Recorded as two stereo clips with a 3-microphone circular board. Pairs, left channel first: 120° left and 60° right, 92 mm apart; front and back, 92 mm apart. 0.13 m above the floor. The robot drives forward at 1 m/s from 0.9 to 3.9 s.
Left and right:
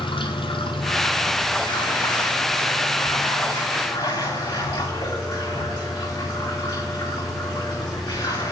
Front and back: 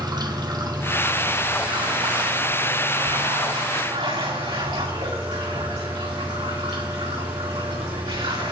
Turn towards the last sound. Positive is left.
turn(degrees=170)